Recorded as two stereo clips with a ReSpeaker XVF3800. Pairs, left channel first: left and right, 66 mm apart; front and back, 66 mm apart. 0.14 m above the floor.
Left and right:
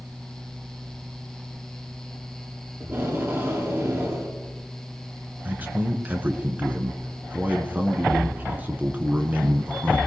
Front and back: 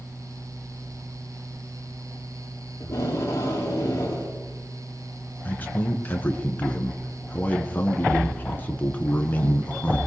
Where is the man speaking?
45° right, 1.8 m.